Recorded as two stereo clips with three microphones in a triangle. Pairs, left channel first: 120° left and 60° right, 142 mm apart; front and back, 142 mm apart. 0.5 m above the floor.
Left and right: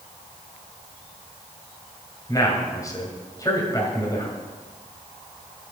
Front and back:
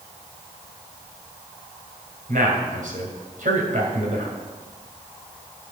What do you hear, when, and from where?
2.3 s a man speaking: 175° right, 2.5 m